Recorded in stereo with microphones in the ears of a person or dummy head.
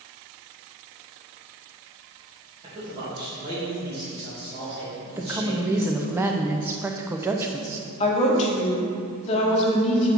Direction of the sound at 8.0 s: 35° left (ahead or behind).